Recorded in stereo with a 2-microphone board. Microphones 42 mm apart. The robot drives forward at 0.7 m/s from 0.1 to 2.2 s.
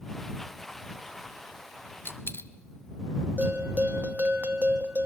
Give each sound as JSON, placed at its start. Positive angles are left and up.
{"t": 2.0, "sound": "a dropped coin", "side_deg": 55, "distance_m": 0.9}
{"t": 3.4, "sound": "a bell", "side_deg": -40, "distance_m": 1.3}